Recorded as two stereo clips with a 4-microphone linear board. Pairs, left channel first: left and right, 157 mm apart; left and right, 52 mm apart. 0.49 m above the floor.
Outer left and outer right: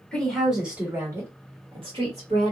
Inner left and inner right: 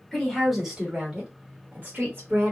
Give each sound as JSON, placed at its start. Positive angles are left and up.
{"t": 0.1, "sound": "a woman speaking", "side_deg": 5, "distance_m": 1.4}